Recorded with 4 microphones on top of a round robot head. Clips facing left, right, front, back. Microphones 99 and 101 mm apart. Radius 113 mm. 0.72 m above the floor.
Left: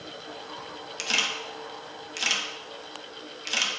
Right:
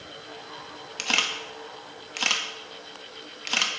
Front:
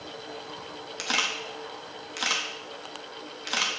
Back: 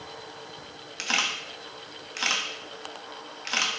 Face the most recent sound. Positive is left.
turn(degrees=-80)